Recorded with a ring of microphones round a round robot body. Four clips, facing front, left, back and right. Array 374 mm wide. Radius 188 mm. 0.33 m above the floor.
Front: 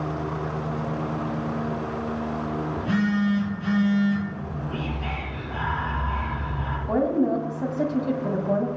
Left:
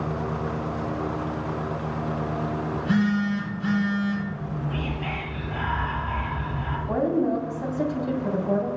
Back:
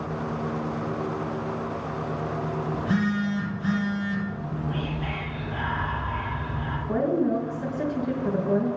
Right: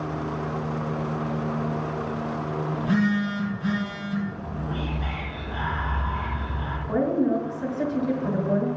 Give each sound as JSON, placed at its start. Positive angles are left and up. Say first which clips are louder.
{"t": 2.7, "sound": "a phone buzzing", "louder": "even, front 2 dB", "azimuth_deg": 40, "distance_m": 6.0}
{"t": 4.3, "sound": "whispering", "louder": "left 1 dB, back 1 dB", "azimuth_deg": 25, "distance_m": 6.0}
{"t": 6.9, "sound": "a woman speaking", "louder": "right 1 dB, front 2 dB", "azimuth_deg": 25, "distance_m": 2.5}